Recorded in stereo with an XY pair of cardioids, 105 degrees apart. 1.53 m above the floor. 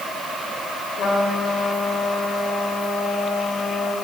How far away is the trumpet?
About 7.5 m.